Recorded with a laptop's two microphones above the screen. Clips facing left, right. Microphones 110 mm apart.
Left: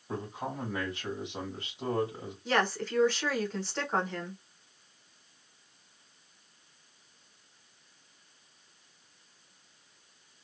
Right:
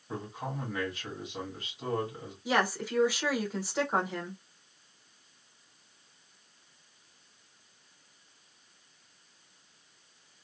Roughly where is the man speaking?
Left.